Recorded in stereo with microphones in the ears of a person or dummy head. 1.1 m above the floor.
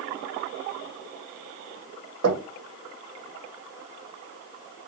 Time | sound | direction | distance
2.2 | knocking | 85° right | 1.2 m